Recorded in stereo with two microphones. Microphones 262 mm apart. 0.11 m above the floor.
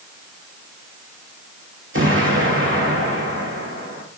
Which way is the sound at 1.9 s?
45° right (ahead or behind).